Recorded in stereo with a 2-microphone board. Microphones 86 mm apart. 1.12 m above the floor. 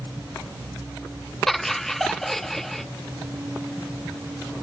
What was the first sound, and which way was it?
Laughter, 5° left (ahead or behind).